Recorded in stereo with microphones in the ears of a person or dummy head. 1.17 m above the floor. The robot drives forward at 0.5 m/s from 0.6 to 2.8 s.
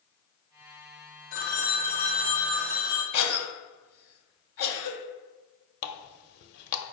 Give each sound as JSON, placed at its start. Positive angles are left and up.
{"t": 1.3, "sound": "a phone ringing", "side_deg": 65, "distance_m": 0.6}
{"t": 3.1, "sound": "a cough", "side_deg": 80, "distance_m": 0.9}
{"t": 5.8, "sound": "a running tap", "side_deg": 60, "distance_m": 0.6}